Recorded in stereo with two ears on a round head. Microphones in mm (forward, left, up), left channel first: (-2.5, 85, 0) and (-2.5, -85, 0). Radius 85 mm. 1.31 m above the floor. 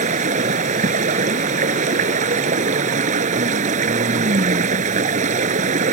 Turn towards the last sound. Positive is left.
turn(degrees=-40)  # may be behind; listen again after turning